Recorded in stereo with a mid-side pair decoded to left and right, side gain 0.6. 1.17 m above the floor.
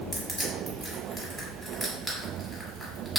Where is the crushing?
10° left, 1.2 m.